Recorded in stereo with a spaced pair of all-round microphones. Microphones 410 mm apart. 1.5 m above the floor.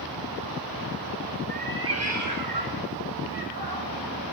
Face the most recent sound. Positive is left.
turn(degrees=-60)  # may be behind; listen again after turning